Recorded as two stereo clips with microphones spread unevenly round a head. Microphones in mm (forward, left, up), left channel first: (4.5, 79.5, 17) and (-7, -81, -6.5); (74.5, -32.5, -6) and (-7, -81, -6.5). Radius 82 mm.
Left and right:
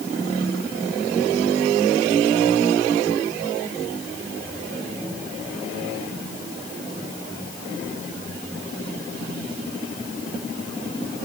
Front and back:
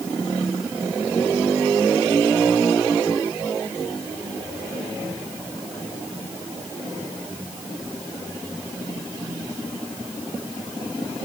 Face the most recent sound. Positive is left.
No sound to turn to.